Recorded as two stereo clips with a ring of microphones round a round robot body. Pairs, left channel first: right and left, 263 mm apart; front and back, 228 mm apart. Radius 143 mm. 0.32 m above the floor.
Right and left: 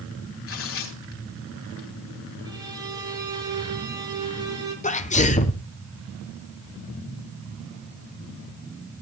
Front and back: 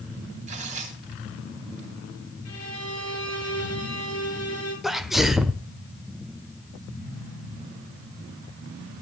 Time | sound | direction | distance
0.5 | tearing paper | 120° right | 3 m
2.5 | a violin | 15° left | 9 m
4.8 | a sneeze | 95° right | 1.1 m